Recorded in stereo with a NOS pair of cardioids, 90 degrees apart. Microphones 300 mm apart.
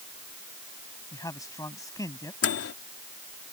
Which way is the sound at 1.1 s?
10° left.